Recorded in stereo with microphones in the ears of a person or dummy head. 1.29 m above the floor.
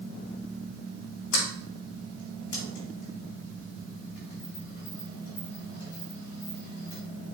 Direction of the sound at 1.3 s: 65° left (ahead or behind).